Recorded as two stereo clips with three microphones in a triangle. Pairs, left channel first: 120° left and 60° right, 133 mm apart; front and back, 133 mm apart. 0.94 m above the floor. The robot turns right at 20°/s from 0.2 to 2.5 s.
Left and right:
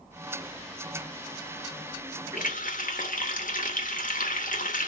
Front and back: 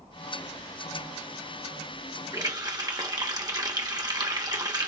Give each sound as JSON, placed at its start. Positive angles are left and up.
{"t": 2.3, "sound": "a running tap", "azimuth_deg": 115, "distance_m": 0.9}